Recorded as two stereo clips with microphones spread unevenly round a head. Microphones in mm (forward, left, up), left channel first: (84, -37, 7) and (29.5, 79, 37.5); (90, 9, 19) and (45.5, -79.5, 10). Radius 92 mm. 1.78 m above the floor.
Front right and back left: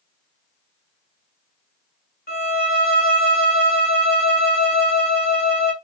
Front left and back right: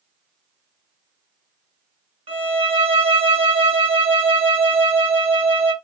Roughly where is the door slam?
No door slam in this recording.